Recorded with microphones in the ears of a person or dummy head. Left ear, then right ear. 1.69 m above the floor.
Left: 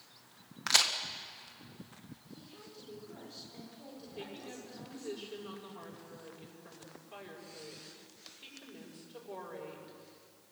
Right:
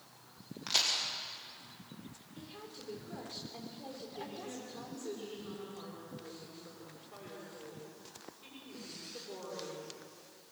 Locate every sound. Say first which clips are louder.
0.7 s a crack: left 3 dB; 60° left (ahead or behind), 1.7 m
2.4 s a woman speaking: right 6 dB; 25° right (ahead or behind), 4.5 m
4.2 s a woman speaking: left 1 dB; 55° left (ahead or behind), 6.5 m